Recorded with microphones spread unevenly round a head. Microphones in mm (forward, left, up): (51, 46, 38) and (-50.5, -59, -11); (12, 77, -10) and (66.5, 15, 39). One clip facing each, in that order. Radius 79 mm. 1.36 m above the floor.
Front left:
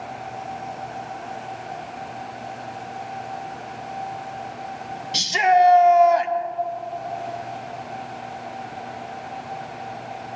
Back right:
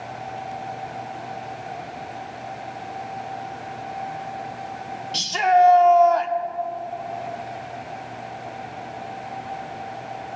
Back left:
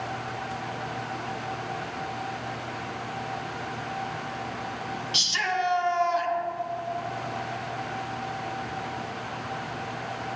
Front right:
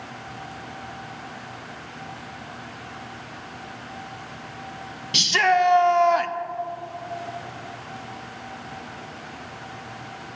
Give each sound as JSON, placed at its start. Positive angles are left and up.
{"t": 5.1, "sound": "a shout", "azimuth_deg": -30, "distance_m": 0.8}